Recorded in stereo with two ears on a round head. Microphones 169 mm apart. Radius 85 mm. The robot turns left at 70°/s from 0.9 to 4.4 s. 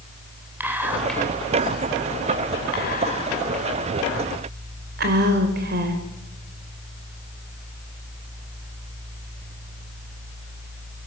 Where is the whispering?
10° right (ahead or behind), 3 m; by 6.0 s 55° right (ahead or behind), 3 m.